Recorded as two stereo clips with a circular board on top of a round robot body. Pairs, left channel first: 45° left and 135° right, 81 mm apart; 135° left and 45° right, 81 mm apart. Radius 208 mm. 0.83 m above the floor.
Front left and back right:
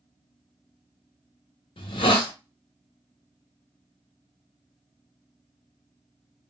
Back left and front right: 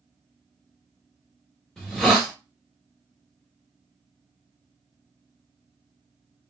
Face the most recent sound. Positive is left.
turn(degrees=50)